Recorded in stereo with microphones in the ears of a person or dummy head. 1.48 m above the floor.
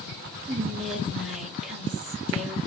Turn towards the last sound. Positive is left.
turn(degrees=0)  # may be behind; listen again after turning